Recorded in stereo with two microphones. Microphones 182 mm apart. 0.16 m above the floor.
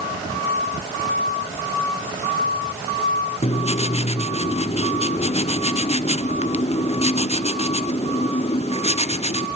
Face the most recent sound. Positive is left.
turn(degrees=35)  # may be behind; listen again after turning